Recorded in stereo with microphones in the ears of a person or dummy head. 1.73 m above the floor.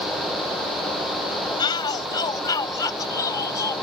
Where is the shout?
25° left (ahead or behind); by 3.7 s 15° left (ahead or behind).